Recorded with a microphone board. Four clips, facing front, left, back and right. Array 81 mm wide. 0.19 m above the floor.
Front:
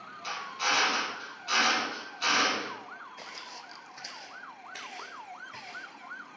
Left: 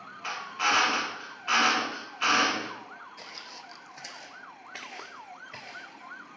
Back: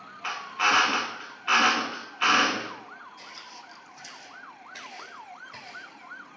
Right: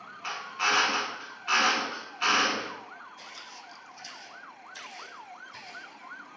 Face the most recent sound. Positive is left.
turn(degrees=100)